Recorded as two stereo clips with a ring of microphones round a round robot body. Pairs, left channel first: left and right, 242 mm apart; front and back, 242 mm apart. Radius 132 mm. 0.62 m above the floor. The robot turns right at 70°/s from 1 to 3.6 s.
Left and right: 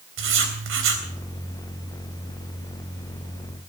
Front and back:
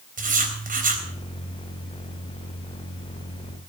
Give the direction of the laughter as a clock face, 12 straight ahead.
I don't hear laughter.